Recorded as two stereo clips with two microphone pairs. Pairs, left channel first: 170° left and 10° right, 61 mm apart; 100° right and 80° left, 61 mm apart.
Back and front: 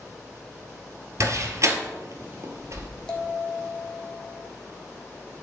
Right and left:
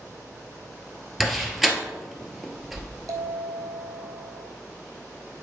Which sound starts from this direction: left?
A bell, at 3.1 s.